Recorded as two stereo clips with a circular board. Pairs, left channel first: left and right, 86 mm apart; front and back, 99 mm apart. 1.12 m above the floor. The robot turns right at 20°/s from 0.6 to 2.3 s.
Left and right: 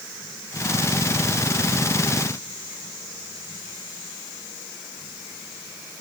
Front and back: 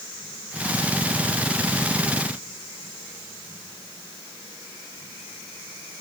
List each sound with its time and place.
Only background noise.